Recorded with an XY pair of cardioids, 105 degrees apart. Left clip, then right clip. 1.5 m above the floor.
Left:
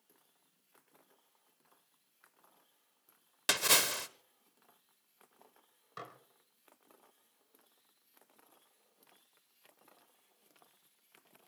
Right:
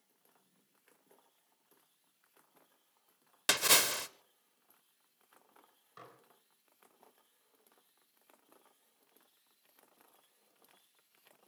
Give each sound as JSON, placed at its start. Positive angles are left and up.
{"t": 3.5, "sound": "a splash", "azimuth_deg": -10, "distance_m": 1.0}
{"t": 6.0, "sound": "dishes clattering", "azimuth_deg": 55, "distance_m": 4.0}